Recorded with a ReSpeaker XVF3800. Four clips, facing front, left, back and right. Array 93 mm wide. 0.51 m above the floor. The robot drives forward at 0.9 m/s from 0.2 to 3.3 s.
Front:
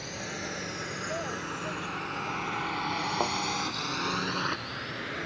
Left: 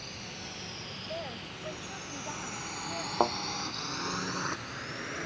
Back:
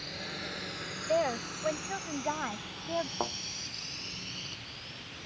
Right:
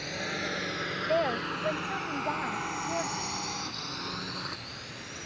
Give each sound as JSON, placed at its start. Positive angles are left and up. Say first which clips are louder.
{"t": 0.0, "sound": "a drone", "louder": "right 10 dB, front 4 dB", "azimuth_deg": -80}
{"t": 1.1, "sound": "a woman speaking", "louder": "right 12 dB, back 8 dB", "azimuth_deg": -125}
{"t": 3.2, "sound": "a thud", "louder": "left 10 dB, front 5 dB", "azimuth_deg": 75}